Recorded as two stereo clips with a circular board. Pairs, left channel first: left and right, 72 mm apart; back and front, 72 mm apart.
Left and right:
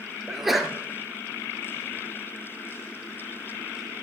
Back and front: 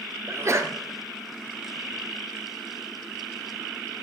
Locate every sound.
0.3 s a sneeze: 5° right, 1.7 m